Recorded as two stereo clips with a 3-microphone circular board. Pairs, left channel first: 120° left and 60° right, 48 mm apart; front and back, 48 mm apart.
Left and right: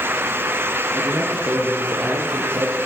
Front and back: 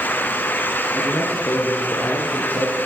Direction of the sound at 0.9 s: 35° right.